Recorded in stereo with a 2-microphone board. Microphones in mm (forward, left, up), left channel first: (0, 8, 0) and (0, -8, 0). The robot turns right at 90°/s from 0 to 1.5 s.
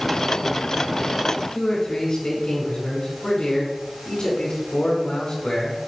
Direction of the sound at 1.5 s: 70° left (ahead or behind).